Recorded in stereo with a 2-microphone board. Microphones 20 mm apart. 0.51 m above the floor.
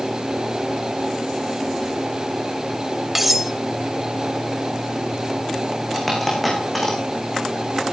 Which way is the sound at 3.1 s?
10° right (ahead or behind).